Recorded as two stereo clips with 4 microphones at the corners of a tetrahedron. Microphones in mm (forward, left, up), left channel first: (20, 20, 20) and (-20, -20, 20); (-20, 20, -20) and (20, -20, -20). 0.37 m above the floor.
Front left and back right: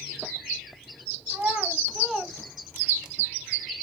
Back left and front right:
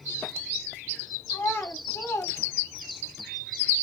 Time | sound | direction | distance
1.3 | a child speaking | 170° left | 1.7 m